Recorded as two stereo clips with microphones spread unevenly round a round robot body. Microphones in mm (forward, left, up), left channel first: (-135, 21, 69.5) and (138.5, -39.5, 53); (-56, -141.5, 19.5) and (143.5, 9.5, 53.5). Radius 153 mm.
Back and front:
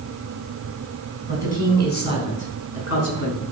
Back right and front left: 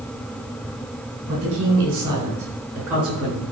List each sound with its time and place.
1.3 s a woman speaking: 105° left, 4 m; by 3.4 s 130° left, 5.5 m